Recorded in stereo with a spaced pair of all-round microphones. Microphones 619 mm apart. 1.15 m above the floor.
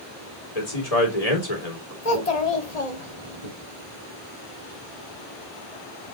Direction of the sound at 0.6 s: 65° left (ahead or behind).